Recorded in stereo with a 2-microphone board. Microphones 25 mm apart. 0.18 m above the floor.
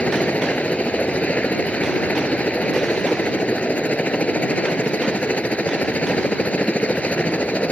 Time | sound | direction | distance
0.0 | a helicopter | 65° left (ahead or behind) | ?